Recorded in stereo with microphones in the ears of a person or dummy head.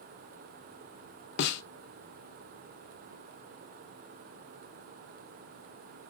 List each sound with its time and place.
1.4 s a snare drum: 60° left (ahead or behind), 0.7 m